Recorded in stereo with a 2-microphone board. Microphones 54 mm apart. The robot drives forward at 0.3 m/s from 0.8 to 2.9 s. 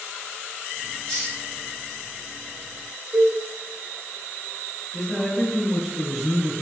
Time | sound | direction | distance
1.1 | a hiss | 10° left (ahead or behind) | 1.3 m
3.1 | a cowbell | 60° right (ahead or behind) | 0.8 m
4.9 | a man speaking | centre (ahead or behind) | 1.7 m